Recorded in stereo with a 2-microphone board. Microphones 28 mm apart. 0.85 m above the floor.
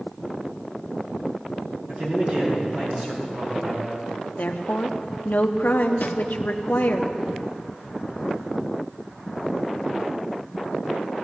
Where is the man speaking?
45° right (ahead or behind), 6 m; by 4.0 s 55° right (ahead or behind), 7 m.